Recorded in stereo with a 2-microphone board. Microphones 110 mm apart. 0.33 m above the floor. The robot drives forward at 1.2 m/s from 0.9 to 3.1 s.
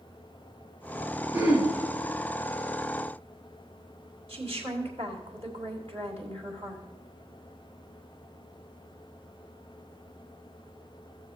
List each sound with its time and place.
1.3 s throat clearing: 20° right (ahead or behind), 3.5 m; by 1.7 s 15° right (ahead or behind), 4 m
4.3 s a woman speaking: 60° right (ahead or behind), 3 m